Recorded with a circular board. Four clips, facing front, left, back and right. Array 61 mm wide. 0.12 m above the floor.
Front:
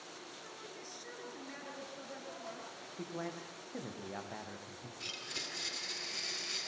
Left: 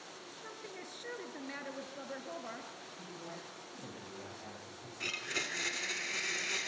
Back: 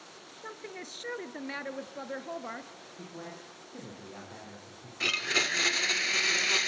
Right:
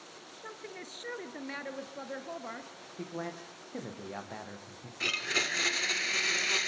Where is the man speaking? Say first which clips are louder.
Right 10 dB, front 2 dB; 70° right, 5.5 m.